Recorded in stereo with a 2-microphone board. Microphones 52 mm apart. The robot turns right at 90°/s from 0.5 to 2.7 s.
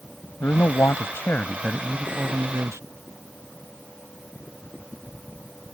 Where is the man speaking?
65° left; by 2.8 s 100° right.